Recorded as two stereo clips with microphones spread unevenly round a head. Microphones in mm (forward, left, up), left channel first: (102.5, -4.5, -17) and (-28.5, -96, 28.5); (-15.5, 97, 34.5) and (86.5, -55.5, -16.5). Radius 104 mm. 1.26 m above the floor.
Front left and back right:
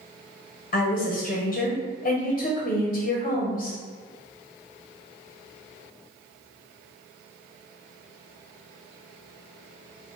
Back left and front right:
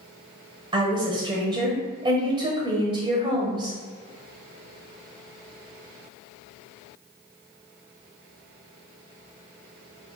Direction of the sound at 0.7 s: Straight ahead.